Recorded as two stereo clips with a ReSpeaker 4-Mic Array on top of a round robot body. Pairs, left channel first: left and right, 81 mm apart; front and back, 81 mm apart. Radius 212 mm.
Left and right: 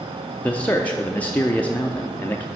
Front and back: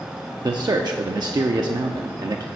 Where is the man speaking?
160° left, 0.7 m.